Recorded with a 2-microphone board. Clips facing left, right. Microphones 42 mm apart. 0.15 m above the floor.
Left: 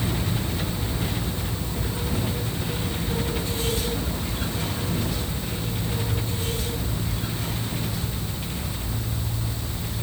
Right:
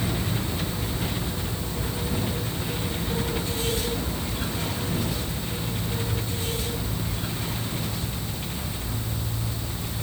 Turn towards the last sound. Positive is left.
No sound to turn to.